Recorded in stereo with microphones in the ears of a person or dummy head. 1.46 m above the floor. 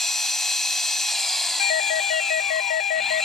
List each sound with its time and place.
0.0 s an engine running: centre (ahead or behind)
1.6 s a doorbell: 55° left (ahead or behind)